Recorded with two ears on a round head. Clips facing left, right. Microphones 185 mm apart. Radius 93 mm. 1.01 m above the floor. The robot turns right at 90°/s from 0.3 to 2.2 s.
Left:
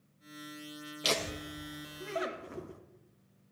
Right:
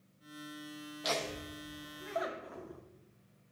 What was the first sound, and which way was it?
Laughter, 40° left (ahead or behind).